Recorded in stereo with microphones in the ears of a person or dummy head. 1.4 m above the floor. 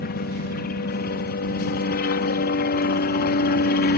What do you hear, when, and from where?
0.0 s a helicopter: 50° left (ahead or behind)